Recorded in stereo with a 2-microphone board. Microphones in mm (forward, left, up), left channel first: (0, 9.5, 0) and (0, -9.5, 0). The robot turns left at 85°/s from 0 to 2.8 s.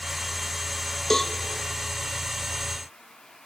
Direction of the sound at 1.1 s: 15° left (ahead or behind).